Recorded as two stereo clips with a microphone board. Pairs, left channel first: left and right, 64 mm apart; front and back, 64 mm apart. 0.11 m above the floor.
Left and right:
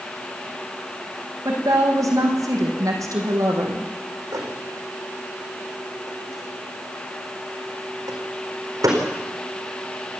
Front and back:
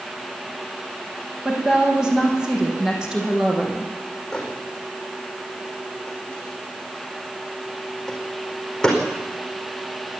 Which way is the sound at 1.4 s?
100° right.